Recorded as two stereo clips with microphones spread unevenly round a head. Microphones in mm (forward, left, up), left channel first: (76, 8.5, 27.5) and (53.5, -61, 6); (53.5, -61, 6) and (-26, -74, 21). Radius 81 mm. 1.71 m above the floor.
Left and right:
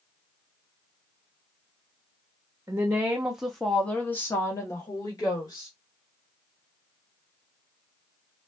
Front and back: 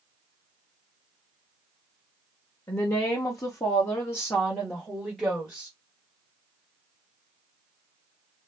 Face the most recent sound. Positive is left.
turn(degrees=105)